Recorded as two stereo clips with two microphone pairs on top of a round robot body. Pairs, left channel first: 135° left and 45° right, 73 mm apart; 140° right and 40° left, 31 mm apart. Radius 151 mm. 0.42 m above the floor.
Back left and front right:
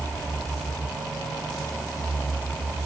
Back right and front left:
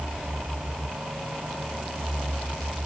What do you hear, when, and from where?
Only background noise.